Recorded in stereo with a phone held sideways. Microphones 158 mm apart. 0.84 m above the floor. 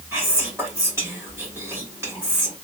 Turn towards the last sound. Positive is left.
turn(degrees=-15)  # may be behind; listen again after turning